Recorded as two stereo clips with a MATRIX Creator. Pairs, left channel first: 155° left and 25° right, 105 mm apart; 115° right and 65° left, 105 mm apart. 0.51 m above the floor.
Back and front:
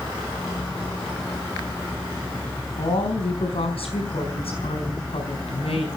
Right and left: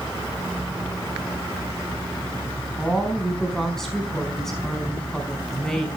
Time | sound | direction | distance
2.8 | a woman speaking | 160° left | 5 m